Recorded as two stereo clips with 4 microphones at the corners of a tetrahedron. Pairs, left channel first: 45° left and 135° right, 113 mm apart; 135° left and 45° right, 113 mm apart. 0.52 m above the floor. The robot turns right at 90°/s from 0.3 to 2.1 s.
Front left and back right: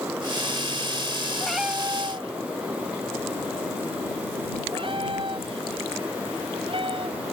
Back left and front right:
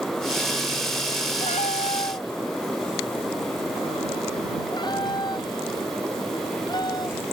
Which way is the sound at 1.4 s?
125° left.